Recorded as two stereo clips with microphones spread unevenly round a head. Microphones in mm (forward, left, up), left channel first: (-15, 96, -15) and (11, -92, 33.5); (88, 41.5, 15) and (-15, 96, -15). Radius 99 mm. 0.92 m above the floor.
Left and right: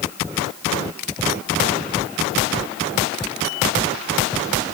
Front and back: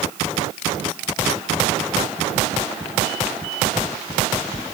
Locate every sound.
Only background noise.